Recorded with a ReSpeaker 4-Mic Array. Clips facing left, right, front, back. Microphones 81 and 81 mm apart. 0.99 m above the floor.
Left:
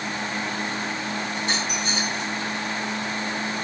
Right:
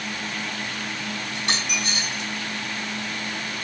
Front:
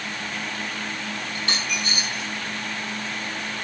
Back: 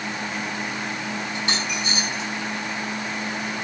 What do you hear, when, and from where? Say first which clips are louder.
1.4 s a dropped coin: left 1 dB, back 2 dB; 110° right, 4.5 m